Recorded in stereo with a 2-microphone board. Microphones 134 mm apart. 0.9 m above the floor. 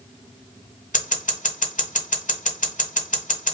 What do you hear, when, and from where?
0.9 s scissors: 70° left (ahead or behind), 1.6 m